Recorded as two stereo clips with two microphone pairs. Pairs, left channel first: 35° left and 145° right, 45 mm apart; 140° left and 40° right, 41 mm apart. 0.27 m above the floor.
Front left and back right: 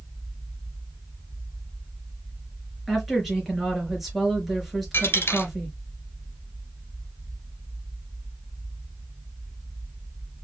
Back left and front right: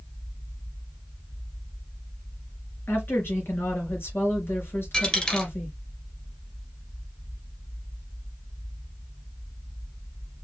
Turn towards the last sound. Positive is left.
turn(degrees=70)